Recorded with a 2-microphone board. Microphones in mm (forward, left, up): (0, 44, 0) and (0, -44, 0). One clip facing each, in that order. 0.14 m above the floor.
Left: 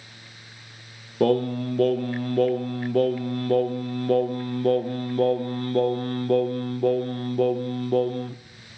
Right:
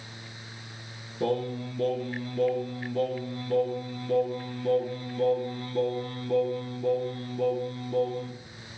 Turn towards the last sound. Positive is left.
turn(degrees=60)  # may be behind; listen again after turning